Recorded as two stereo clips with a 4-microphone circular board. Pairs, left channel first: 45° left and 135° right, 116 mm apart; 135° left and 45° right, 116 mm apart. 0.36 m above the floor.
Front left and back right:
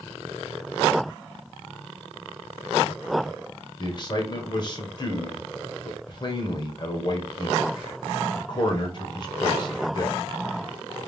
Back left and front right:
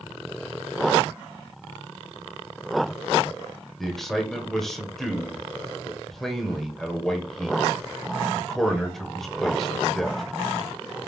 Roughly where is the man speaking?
Ahead left.